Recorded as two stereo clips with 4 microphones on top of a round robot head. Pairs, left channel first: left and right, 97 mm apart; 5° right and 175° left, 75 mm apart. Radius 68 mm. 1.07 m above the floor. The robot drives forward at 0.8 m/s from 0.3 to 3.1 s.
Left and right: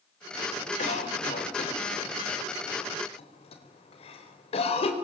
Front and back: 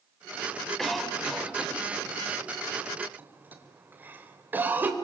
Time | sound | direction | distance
0.8 | a cough | 80° left | 3.5 m